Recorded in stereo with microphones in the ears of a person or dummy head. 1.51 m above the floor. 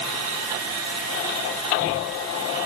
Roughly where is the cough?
No cough in this recording.